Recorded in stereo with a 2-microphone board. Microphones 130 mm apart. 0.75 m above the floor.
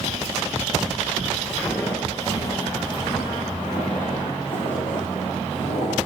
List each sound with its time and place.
1.5 s footsteps: 5° left (ahead or behind), 0.8 m; by 6.1 s 45° left (ahead or behind), 3.5 m